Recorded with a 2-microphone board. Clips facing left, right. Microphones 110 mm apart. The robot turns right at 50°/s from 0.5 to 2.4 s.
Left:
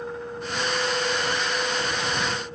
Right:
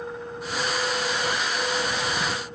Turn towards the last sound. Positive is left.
No sound to turn to.